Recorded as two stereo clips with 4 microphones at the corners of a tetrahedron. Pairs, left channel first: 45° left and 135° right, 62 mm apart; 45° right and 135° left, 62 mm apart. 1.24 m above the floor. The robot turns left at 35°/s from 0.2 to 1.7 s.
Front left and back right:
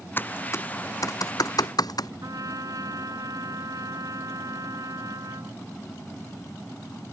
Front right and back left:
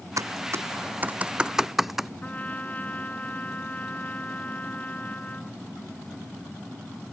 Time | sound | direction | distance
0.2 | typing on a keyboard | 105° left | ?
2.2 | a trumpet | 110° right | ?